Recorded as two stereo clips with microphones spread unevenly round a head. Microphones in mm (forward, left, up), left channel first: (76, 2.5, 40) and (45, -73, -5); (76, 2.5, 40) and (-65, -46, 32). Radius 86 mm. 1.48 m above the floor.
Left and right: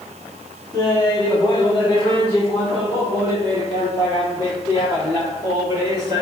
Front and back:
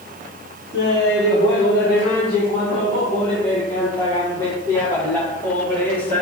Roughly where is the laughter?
Ahead left.